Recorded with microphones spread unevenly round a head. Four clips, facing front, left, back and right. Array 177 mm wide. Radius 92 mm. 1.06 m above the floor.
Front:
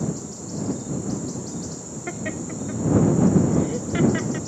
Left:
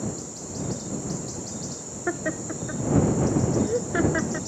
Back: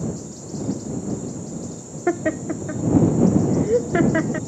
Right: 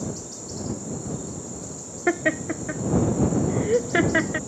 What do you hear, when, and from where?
2.1 s laughter: 160° right